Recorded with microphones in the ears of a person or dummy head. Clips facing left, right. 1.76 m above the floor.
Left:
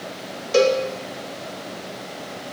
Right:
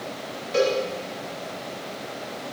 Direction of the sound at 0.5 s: 55° left (ahead or behind).